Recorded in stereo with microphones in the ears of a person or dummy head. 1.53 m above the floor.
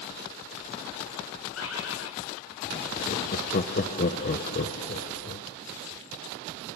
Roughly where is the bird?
Left.